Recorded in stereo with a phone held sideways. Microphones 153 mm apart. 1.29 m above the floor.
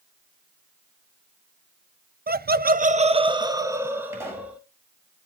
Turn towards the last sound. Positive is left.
turn(degrees=-20)  # may be behind; listen again after turning